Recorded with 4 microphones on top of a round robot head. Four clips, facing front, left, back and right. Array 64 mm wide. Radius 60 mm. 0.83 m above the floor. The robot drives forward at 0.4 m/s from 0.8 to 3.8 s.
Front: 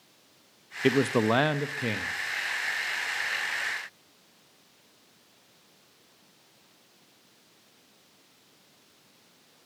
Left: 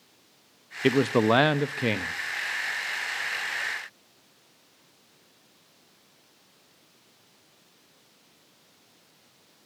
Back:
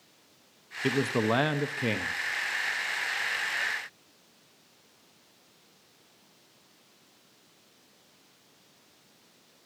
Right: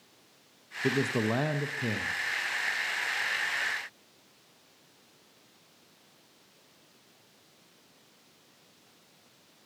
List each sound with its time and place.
0.8 s a man speaking: 60° left, 0.6 m; by 2.1 s 115° left, 0.6 m